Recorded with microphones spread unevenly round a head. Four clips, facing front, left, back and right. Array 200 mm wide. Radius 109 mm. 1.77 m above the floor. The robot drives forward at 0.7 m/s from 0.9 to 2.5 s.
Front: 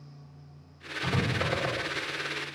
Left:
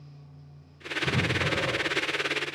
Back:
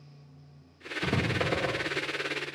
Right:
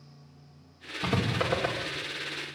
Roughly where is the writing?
Behind right.